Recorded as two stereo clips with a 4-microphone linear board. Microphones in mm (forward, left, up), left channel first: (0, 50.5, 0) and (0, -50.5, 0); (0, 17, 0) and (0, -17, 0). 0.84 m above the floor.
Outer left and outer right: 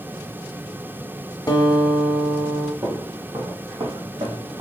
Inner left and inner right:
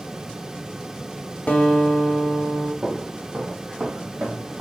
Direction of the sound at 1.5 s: 45° left (ahead or behind).